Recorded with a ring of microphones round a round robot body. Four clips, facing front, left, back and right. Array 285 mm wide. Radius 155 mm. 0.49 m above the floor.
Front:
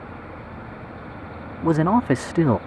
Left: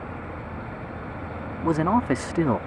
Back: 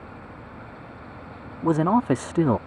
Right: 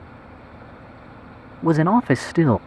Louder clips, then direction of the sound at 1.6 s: Right 5 dB, front 2 dB; 65° right.